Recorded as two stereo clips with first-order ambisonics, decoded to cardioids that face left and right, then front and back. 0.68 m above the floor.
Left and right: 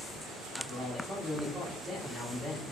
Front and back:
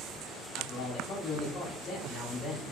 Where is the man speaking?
10° left, 1.1 m.